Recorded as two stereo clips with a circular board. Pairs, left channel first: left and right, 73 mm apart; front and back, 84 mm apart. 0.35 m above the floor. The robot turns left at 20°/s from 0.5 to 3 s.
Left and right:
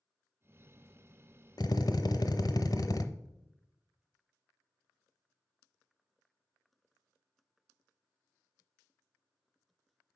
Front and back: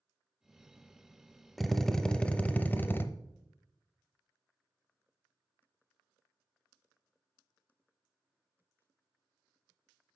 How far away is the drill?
About 0.5 m.